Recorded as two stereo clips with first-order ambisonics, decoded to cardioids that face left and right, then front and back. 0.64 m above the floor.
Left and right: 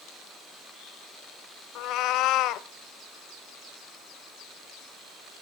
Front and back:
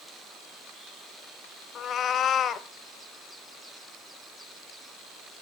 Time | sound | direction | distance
1.8 | a cat meowing | 55° left | 0.7 m